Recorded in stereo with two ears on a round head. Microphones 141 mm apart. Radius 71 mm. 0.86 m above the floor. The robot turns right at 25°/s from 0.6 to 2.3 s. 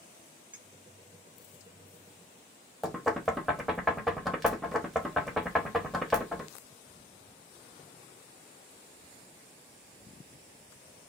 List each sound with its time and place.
0.5 s a clink: 10° right (ahead or behind), 1.0 m; by 0.7 s 5° right (ahead or behind), 1.0 m
2.8 s knocking: centre (ahead or behind), 0.8 m